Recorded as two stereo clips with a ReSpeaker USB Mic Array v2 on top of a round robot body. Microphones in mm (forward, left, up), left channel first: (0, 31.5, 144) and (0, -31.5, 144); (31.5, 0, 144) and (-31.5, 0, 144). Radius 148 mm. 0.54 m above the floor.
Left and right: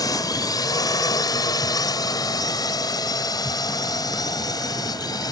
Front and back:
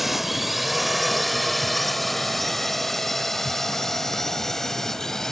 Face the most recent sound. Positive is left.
turn(degrees=85)